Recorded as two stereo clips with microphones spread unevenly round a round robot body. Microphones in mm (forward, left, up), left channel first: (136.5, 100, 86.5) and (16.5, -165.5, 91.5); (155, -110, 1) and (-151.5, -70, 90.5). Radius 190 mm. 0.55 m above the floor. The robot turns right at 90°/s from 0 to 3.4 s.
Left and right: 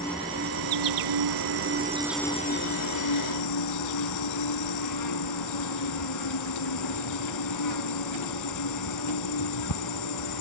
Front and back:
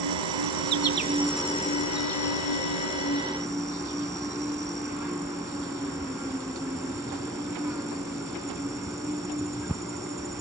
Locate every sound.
0.0 s an insect: 140° left; by 10.4 s 90° left